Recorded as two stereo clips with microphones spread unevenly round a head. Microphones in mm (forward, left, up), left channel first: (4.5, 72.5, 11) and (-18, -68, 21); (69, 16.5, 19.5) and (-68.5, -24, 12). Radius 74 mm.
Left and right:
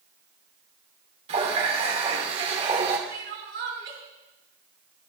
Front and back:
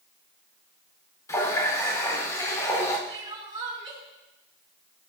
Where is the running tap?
50° right, 2.5 m.